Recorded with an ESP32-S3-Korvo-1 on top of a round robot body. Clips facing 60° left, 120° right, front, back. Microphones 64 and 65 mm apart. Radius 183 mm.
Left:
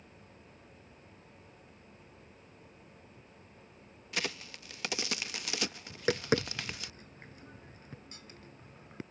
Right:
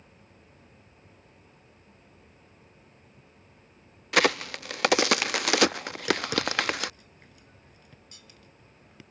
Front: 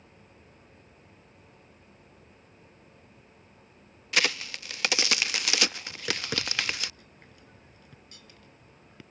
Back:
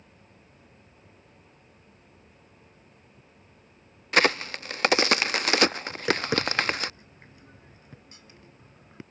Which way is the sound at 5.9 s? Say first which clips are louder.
Right 2 dB, back 7 dB; 120° left.